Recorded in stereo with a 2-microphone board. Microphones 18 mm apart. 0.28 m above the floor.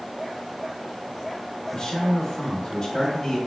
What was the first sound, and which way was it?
A man speaking, 40° left (ahead or behind).